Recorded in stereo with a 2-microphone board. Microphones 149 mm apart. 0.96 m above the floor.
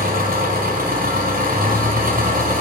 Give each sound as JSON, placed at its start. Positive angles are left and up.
{"t": 0.0, "sound": "an engine running", "side_deg": -85, "distance_m": 3.5}